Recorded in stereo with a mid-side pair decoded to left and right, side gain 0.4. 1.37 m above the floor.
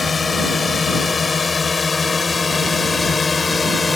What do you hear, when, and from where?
0.0 s a drone: 35° left; by 4.0 s 25° left